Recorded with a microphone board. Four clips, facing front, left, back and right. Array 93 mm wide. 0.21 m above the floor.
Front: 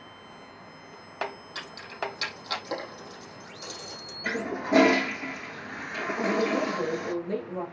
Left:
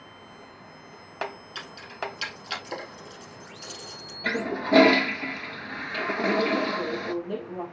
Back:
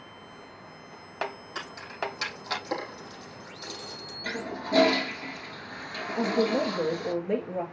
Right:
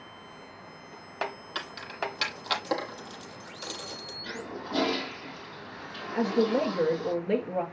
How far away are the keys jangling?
About 4.5 m.